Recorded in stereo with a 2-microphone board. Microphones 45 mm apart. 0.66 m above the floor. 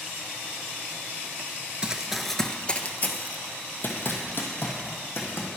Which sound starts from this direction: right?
Running footsteps, at 1.8 s.